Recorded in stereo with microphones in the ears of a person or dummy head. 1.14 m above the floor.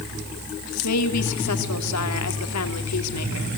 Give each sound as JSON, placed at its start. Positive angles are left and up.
{"t": 0.8, "sound": "a woman speaking", "side_deg": 80, "distance_m": 3.0}